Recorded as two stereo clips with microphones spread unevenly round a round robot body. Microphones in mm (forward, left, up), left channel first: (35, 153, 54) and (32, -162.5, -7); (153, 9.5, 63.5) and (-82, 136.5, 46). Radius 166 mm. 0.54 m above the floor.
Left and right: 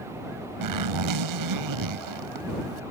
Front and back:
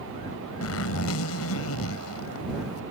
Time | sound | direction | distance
0.6 | a zipper | 70° right | ?